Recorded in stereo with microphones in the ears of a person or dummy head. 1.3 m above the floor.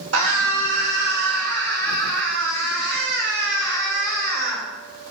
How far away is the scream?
About 2.5 m.